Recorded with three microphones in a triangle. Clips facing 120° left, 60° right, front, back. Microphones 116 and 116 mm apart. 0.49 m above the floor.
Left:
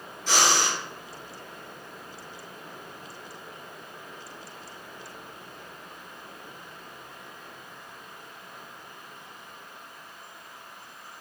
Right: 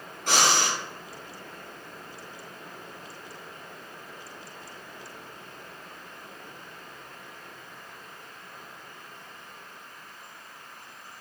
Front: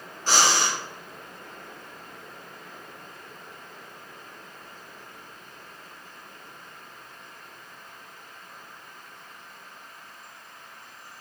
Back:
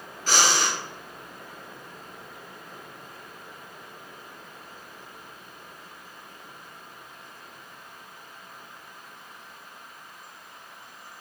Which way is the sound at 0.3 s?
45° right.